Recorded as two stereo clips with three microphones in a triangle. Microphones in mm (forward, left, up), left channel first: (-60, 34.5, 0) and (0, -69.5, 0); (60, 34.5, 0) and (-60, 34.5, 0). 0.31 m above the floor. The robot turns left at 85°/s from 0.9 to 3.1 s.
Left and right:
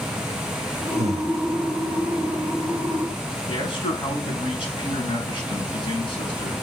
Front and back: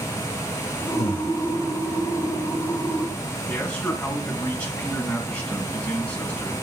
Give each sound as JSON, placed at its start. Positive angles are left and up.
{"t": 1.0, "sound": "breathing", "azimuth_deg": -30, "distance_m": 1.3}
{"t": 3.5, "sound": "a man speaking", "azimuth_deg": 80, "distance_m": 3.0}